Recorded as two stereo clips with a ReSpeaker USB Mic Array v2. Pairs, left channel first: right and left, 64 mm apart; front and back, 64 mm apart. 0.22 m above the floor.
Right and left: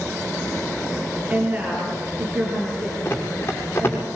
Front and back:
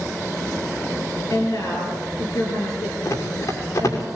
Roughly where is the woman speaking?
Ahead left.